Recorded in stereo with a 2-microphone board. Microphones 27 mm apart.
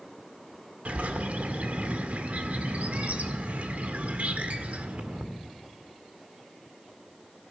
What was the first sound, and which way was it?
A bird, 65° right (ahead or behind).